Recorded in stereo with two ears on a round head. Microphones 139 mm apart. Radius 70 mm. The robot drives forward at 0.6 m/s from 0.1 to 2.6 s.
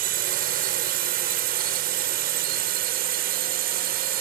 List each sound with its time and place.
0.0 s a drone: 60° right (ahead or behind)